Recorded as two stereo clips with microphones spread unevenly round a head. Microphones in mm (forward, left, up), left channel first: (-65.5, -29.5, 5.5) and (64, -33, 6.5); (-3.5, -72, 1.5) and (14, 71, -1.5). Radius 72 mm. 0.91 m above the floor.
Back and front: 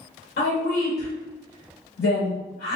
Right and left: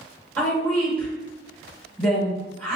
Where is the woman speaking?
Straight behind, 1.5 m.